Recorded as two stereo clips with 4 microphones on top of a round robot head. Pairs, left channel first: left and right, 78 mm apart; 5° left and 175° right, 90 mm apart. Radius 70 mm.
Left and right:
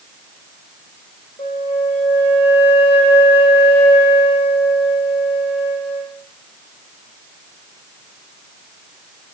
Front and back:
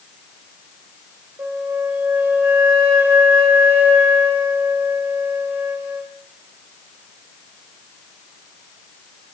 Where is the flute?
120° left, 1.8 m.